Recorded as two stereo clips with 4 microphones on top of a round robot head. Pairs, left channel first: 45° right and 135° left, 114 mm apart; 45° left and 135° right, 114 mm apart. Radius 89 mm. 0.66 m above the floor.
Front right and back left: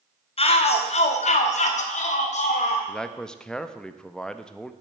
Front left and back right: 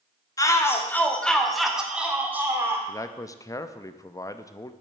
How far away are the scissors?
I don't hear scissors.